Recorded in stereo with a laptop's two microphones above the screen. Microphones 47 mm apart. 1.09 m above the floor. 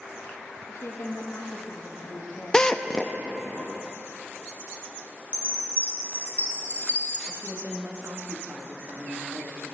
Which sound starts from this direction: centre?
A drill, at 2.5 s.